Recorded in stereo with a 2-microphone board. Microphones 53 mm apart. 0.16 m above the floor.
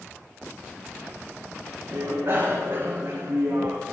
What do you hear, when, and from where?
1.9 s a bicycle bell: 45° right (ahead or behind), 9.5 m; by 3.8 s 55° right (ahead or behind), 7.5 m